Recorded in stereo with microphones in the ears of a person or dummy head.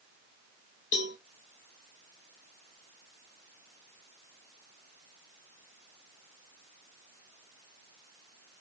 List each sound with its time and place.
0.9 s a cowbell: 25° left (ahead or behind), 0.7 m